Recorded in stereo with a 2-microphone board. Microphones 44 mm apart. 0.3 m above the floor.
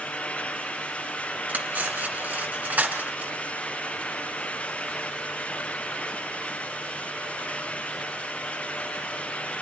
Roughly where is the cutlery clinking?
Right.